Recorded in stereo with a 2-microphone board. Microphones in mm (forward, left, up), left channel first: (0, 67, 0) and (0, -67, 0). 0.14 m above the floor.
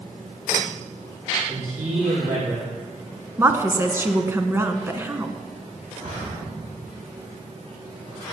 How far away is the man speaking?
About 6.5 m.